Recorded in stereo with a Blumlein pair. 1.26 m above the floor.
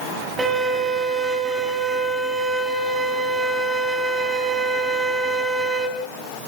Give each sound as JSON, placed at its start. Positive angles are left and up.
{"t": 0.4, "sound": "a violin", "azimuth_deg": -10, "distance_m": 3.0}